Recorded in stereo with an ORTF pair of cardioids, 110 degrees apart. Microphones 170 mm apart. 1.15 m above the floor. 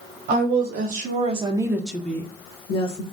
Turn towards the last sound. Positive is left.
turn(degrees=35)